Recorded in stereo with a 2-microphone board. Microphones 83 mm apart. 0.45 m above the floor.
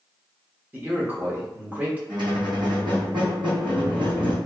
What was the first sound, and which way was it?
A man speaking, 20° right (ahead or behind).